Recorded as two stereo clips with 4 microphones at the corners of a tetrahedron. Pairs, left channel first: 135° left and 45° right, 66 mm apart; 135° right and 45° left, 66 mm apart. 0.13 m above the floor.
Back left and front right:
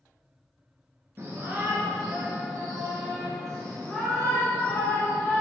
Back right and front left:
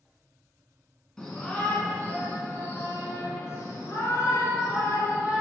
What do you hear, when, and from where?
1.2 s a shout: 60° right, 1.8 m; by 5.4 s 165° right, 3 m